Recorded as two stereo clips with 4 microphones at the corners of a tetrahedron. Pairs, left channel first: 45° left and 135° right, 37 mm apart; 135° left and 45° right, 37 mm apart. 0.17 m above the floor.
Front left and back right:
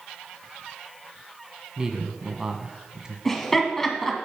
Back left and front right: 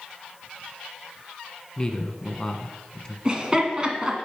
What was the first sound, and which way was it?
A man speaking, straight behind.